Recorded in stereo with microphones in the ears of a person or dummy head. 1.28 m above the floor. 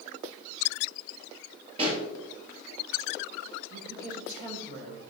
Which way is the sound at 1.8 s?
35° right (ahead or behind).